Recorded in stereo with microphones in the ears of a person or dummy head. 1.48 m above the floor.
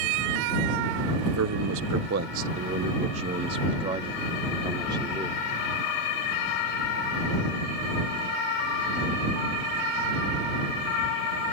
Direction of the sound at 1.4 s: 75° right (ahead or behind).